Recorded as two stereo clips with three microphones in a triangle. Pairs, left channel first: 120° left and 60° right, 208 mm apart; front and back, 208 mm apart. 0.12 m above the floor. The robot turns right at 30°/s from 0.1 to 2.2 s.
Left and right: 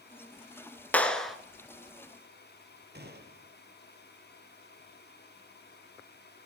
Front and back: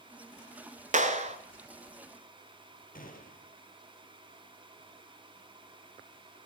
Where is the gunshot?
40° right, 2.5 m.